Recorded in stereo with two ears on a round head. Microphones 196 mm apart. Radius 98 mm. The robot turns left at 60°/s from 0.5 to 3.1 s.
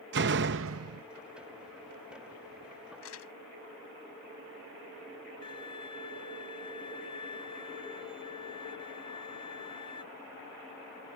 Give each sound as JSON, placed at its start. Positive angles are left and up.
{"t": 0.1, "sound": "a door slam", "azimuth_deg": -50}
{"t": 3.0, "sound": "crumpling", "side_deg": 65}
{"t": 5.4, "sound": "a violin", "side_deg": 20}